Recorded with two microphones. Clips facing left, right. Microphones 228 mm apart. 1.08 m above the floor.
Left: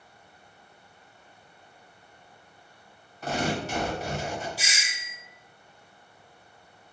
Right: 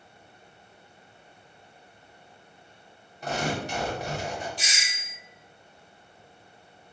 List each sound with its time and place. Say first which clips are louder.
3.2 s tearing paper: left 1 dB; 15° right (ahead or behind), 1.3 m
4.6 s a doorbell: left 1 dB; 10° left (ahead or behind), 0.6 m